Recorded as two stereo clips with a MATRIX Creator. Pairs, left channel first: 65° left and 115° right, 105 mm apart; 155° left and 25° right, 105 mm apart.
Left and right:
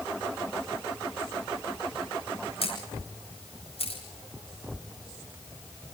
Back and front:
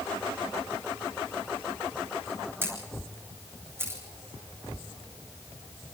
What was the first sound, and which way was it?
A camera shutter, 45° left.